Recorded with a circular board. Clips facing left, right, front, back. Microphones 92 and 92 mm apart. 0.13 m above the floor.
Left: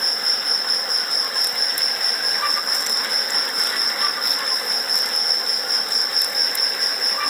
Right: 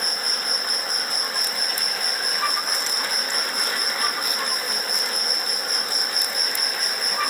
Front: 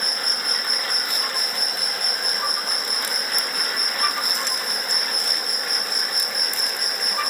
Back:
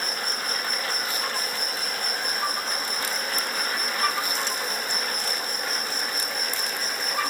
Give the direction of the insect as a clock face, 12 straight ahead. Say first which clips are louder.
Even, even; 10 o'clock.